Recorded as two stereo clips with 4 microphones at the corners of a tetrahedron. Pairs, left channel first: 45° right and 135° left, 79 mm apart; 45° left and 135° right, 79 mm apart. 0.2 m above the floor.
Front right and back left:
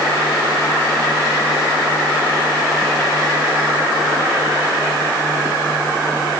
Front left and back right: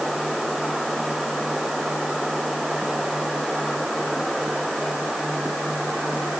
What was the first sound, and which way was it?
Only background noise.